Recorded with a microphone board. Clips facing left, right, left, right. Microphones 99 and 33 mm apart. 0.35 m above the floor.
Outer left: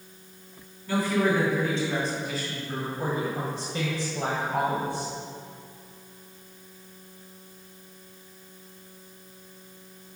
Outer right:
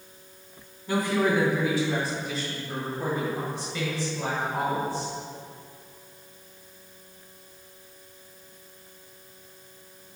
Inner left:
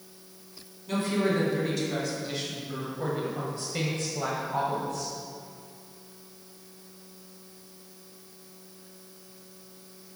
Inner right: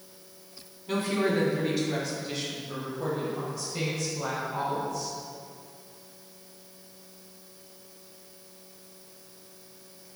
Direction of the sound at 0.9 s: 20° right (ahead or behind).